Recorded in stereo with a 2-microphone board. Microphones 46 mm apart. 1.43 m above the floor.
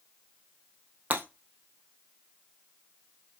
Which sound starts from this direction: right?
Breaking glass, at 1.1 s.